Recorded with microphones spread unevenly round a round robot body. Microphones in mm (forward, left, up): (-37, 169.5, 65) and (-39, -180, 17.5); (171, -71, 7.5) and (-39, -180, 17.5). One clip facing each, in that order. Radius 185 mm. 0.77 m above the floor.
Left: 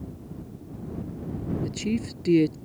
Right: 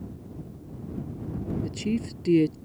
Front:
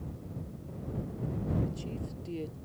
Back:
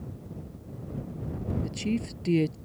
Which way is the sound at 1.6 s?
Straight behind.